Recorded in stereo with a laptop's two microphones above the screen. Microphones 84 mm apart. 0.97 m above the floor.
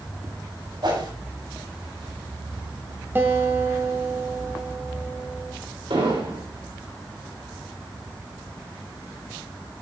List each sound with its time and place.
0.8 s a whoosh: 55° right (ahead or behind), 7.5 m
3.1 s a guitar: 25° right (ahead or behind), 1.3 m
5.9 s an explosion: 80° right, 3 m